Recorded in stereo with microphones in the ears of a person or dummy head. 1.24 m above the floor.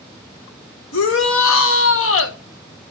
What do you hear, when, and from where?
0.9 s a shout: 70° left (ahead or behind), 1.5 m